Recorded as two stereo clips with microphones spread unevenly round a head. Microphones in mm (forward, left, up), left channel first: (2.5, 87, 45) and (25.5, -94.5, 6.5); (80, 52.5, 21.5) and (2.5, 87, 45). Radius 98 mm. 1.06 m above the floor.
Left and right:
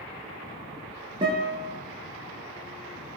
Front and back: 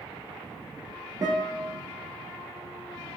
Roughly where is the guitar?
Behind right.